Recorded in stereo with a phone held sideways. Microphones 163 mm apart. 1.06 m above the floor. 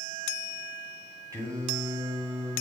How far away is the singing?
About 3.5 m.